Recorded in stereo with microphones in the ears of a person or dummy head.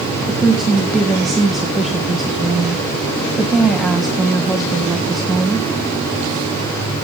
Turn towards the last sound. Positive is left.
turn(degrees=0)  # may be behind; listen again after turning